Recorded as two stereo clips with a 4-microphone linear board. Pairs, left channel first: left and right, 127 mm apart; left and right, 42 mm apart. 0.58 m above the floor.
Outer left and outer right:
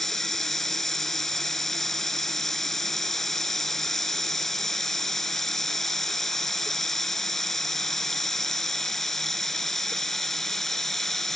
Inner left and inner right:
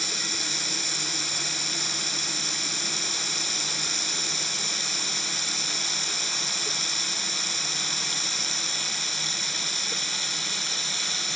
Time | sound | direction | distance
0.0 | running water | centre (ahead or behind) | ?